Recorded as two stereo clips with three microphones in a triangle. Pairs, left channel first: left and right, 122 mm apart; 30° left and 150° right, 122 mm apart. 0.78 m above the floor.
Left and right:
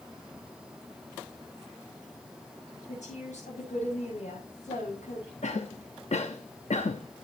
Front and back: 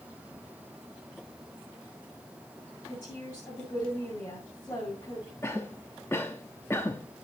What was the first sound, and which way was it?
A woman speaking, 100° left.